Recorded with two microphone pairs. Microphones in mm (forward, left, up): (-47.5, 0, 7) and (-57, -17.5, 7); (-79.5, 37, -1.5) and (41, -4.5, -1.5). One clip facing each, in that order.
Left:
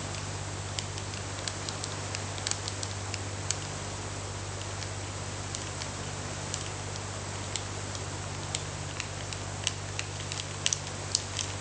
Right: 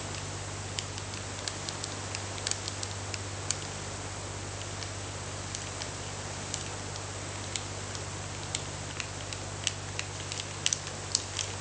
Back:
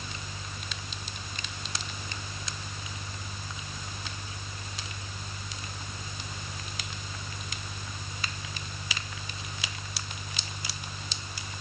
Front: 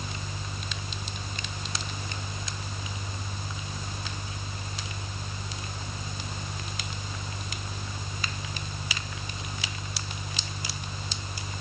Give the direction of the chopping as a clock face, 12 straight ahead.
No chopping in this recording.